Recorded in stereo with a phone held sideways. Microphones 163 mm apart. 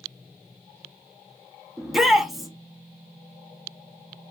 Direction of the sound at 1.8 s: Centre (ahead or behind).